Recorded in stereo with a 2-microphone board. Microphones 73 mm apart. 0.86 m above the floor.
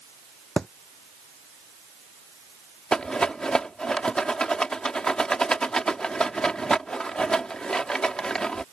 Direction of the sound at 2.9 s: 10° left (ahead or behind).